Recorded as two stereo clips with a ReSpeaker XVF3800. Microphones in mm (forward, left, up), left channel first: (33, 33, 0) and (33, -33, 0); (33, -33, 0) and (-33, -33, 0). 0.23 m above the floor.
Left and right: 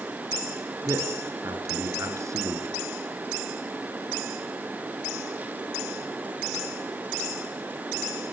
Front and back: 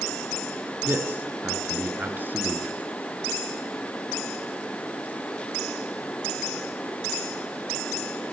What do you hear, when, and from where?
0.8 s a man speaking: 120° right, 3 m